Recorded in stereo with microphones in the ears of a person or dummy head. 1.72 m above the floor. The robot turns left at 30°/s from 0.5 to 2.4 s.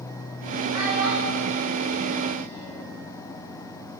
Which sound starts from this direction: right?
A child speaking, at 0.7 s.